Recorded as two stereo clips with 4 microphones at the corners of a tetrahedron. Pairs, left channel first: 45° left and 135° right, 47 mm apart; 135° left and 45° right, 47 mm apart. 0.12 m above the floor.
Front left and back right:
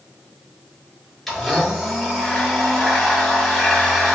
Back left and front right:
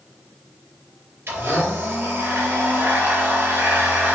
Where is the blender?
35° right, 2.5 m.